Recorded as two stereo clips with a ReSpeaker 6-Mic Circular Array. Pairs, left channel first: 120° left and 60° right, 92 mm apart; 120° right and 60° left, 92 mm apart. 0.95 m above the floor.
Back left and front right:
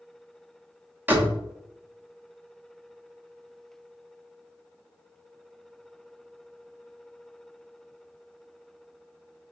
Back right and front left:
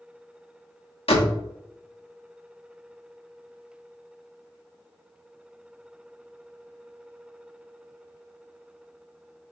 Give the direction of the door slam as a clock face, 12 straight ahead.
4 o'clock.